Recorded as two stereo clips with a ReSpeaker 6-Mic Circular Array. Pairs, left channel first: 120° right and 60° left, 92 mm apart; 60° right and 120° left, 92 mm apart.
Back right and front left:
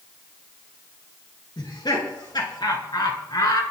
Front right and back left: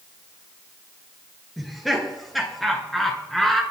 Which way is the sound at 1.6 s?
150° right.